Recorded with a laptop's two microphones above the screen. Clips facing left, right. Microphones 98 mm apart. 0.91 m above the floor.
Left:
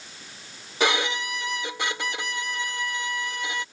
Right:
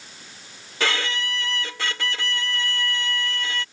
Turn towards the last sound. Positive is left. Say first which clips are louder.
# left 2 dB
turn(degrees=20)  # may be behind; listen again after turning